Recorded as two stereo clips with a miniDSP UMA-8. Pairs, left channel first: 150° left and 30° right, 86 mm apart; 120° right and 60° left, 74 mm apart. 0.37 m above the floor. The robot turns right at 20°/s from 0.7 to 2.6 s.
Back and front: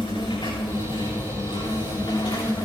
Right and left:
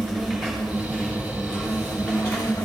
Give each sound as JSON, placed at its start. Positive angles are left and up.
{"t": 0.0, "sound": "an insect", "azimuth_deg": 160, "distance_m": 5.5}